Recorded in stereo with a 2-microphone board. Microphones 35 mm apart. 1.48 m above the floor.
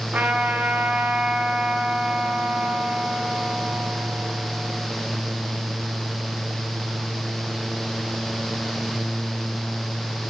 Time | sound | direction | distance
0.1 | a trumpet | 35° right (ahead or behind) | 9.5 m